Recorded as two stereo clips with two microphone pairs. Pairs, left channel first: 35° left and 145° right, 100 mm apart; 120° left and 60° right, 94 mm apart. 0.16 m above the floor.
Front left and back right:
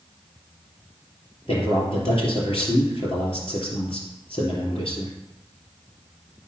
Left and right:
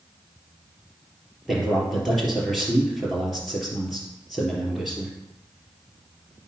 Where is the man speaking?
25° left, 3.5 m.